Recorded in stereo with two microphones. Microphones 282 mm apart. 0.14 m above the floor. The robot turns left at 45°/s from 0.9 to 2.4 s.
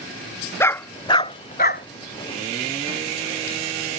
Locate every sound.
0.6 s a dog barking: 10° left (ahead or behind); by 1.9 s 40° left (ahead or behind)